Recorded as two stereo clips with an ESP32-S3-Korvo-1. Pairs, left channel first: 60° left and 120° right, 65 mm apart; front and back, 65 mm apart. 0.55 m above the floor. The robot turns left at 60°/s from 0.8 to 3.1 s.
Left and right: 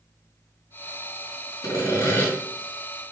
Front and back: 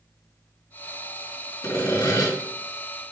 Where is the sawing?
30° left, 3.5 m; by 2.3 s 10° right, 3.5 m.